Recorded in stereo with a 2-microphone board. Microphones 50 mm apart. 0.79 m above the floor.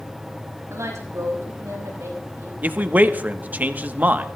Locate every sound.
0.7 s a woman speaking: 75° right (ahead or behind), 6 m
2.6 s a man speaking: 35° right (ahead or behind), 0.9 m